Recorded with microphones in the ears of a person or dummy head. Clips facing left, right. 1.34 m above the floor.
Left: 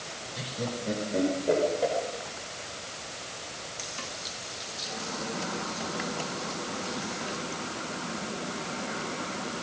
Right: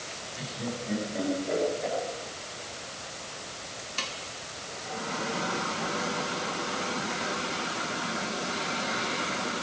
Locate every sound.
0.3 s laughter: 80° left, 5 m